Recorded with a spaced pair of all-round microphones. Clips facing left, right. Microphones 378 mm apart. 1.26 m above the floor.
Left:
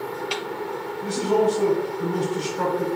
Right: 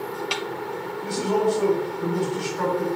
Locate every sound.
1.0 s a man speaking: 50° left (ahead or behind), 0.9 m